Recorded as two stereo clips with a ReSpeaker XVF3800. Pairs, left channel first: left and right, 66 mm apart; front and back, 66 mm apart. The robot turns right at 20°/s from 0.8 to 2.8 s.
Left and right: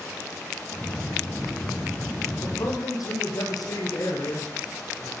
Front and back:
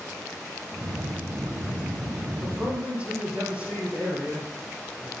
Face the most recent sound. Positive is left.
turn(degrees=110)